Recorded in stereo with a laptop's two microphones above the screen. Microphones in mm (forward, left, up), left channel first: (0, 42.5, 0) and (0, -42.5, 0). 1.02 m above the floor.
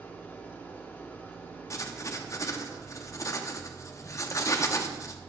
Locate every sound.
0.0 s an engine running: 25° left (ahead or behind), 0.8 m
1.7 s writing: 40° left (ahead or behind), 0.5 m